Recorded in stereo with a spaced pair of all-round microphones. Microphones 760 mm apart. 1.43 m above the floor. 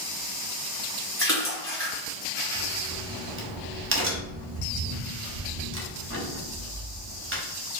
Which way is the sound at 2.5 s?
15° right (ahead or behind).